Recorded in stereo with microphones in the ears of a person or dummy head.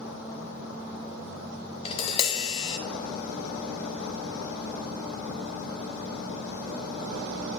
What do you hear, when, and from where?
1.9 s tapping: 30° left (ahead or behind), 0.8 m